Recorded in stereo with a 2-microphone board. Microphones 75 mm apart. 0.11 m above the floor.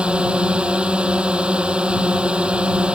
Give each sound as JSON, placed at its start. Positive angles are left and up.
{"t": 0.0, "sound": "a drone", "side_deg": -15}